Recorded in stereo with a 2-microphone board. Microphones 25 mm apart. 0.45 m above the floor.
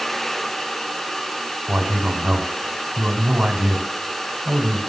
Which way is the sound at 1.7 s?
50° right (ahead or behind).